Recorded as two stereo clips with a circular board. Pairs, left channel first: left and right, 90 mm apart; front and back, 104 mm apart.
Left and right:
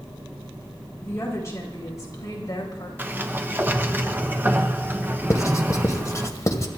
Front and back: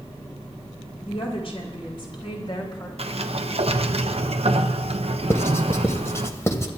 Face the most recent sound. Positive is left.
turn(degrees=50)